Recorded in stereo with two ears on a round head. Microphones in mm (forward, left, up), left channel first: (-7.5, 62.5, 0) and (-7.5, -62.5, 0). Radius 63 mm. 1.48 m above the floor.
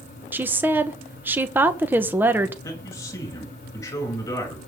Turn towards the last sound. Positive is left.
turn(degrees=20)  # may be behind; listen again after turning